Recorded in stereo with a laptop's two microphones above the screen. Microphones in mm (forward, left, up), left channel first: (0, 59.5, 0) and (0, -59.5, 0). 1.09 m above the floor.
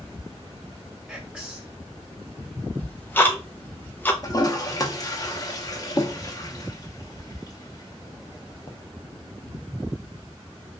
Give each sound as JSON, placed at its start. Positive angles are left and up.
{"t": 1.1, "sound": "whispering", "side_deg": -5, "distance_m": 1.6}
{"t": 2.8, "sound": "ticking", "side_deg": 15, "distance_m": 0.7}
{"t": 4.2, "sound": "a toilet flushing", "side_deg": 35, "distance_m": 0.6}